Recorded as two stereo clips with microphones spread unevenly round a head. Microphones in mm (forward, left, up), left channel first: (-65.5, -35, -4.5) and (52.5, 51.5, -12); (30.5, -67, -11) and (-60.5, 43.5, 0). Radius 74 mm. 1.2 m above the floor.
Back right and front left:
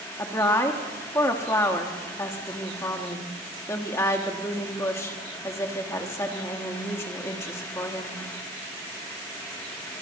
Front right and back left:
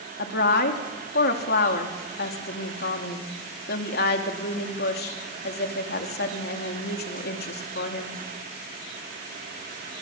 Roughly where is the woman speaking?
Right.